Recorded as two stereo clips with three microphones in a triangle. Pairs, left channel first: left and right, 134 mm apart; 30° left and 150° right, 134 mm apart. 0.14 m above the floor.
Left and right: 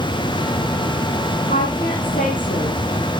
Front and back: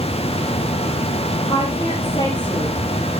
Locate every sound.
1.5 s a woman speaking: 85° left, 4.5 m